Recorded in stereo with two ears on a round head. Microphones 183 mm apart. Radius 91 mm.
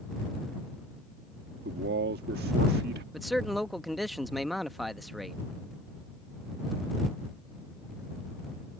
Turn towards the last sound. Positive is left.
turn(degrees=0)  # may be behind; listen again after turning